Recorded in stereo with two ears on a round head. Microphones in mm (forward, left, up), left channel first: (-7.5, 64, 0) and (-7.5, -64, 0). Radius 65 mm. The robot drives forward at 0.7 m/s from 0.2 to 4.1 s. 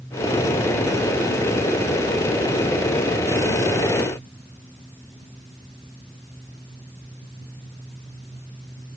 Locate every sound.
Only background noise.